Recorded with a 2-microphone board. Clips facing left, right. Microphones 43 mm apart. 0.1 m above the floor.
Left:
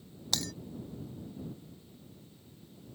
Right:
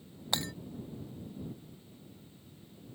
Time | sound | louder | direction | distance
0.3 | breaking glass | right 1 dB | 25° right (ahead or behind) | ?